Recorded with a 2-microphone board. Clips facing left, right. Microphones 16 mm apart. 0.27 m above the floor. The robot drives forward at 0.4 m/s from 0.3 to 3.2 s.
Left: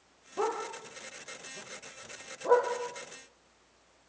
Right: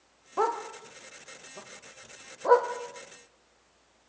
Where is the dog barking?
65° right (ahead or behind), 2.5 m; by 2.7 s 50° right (ahead or behind), 3 m.